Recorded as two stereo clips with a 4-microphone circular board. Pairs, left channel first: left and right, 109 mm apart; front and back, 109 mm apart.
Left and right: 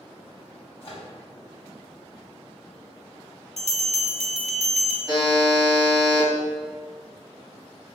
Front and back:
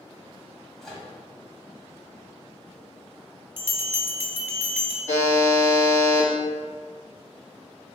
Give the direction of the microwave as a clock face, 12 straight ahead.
9 o'clock.